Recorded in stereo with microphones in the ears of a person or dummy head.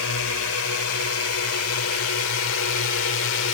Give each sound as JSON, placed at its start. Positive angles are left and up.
{"t": 0.0, "sound": "a drone", "side_deg": 75}